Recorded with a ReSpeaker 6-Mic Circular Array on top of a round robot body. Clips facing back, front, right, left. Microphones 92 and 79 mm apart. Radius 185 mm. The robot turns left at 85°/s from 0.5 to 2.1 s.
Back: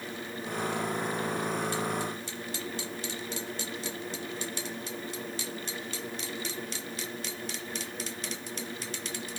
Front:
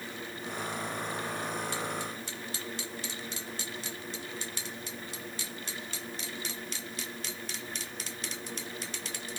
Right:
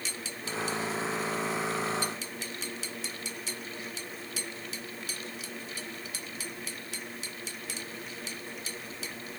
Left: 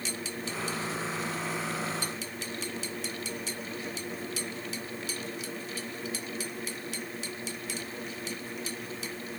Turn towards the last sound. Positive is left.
No sound to turn to.